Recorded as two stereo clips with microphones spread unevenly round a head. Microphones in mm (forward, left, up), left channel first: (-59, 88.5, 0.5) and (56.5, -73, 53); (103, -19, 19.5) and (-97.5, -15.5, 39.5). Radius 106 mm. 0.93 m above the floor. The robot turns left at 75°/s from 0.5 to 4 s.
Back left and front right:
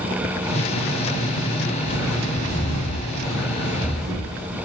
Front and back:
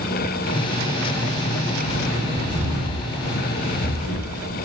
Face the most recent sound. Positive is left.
turn(degrees=35)